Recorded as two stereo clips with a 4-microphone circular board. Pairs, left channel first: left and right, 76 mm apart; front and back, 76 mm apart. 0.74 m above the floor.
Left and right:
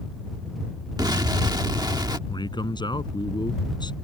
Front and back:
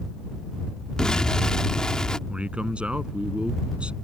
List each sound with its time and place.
1.0 s an explosion: 80° right
2.3 s a man speaking: 105° left